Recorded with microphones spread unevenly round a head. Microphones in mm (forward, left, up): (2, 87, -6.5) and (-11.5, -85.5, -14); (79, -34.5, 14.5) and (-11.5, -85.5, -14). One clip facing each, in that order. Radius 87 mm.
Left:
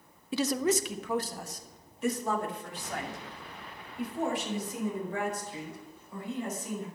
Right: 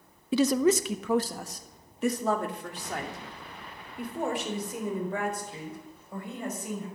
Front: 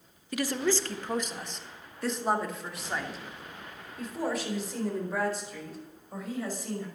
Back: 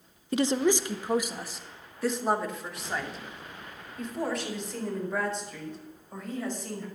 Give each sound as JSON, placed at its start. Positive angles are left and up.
{"t": 0.3, "sound": "a woman speaking", "azimuth_deg": -85, "distance_m": 0.8}